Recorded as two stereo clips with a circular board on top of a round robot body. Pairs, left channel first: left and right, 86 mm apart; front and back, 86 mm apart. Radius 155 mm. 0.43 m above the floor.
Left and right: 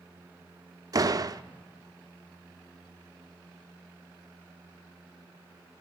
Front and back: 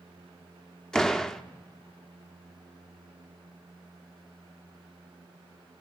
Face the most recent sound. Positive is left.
turn(degrees=-80)